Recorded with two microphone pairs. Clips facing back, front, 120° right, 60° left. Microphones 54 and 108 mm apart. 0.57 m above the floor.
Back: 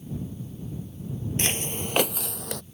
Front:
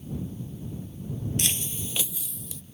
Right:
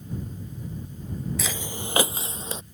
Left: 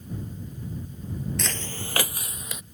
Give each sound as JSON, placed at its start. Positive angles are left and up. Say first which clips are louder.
{"t": 1.4, "sound": "footsteps", "louder": "back 4 dB, right 1 dB", "azimuth_deg": 155}